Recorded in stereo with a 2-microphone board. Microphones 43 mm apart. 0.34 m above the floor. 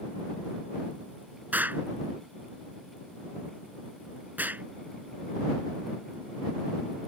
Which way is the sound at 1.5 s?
45° right (ahead or behind).